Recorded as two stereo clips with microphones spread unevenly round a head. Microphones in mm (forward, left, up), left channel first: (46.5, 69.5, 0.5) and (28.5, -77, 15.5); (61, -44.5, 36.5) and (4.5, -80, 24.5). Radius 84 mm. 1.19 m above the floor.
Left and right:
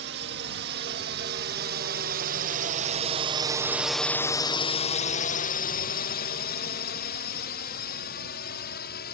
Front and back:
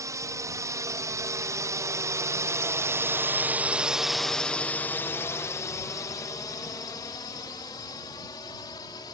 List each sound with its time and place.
0.0 s a drone: 115° right; by 9.1 s 75° left